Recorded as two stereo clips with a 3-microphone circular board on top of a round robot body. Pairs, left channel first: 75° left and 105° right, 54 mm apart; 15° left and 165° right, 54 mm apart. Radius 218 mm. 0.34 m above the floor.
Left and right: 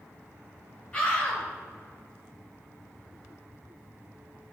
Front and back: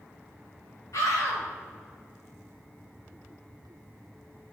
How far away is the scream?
About 3 m.